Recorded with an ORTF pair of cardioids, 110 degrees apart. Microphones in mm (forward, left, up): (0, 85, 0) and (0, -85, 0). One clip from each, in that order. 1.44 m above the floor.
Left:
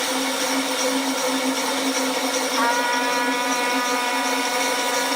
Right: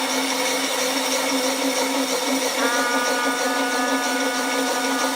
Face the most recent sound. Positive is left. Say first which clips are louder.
# left 2 dB
turn(degrees=50)